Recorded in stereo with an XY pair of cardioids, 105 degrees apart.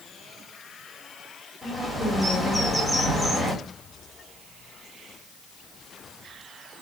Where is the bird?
30° left, 2.5 m.